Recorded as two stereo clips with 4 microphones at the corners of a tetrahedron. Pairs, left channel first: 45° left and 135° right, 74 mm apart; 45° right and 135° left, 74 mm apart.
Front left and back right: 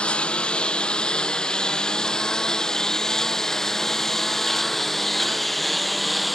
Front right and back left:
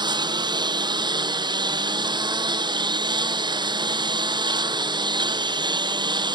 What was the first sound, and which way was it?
A lawn mower, 125° left.